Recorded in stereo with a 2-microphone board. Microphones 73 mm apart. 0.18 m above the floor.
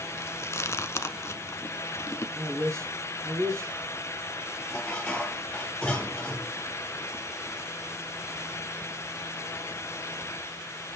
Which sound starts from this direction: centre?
Dishes clattering, at 4.7 s.